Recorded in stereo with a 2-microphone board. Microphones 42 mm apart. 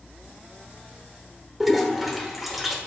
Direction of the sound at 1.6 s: Centre (ahead or behind).